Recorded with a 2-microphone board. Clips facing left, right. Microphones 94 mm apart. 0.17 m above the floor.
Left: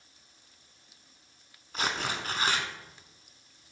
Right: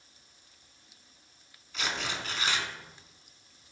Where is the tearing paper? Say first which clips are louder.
Left 3 dB; 40° left (ahead or behind), 0.8 m.